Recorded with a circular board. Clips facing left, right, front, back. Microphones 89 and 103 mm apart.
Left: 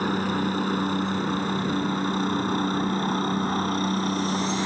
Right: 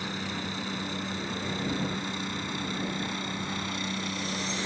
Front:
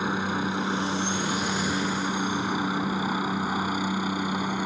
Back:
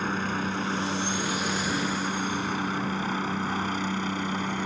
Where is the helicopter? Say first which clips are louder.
Left 10 dB, front 2 dB; 75° left.